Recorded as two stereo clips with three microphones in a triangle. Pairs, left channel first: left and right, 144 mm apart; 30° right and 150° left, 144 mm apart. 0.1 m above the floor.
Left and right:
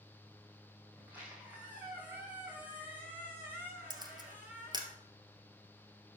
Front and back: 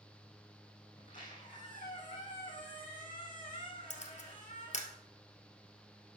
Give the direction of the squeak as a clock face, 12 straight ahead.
12 o'clock.